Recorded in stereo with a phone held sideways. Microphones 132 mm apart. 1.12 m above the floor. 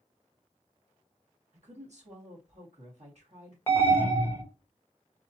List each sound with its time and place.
1.5 s a woman speaking: 55° right (ahead or behind), 1.8 m
3.7 s an alarm: 15° left (ahead or behind), 0.8 m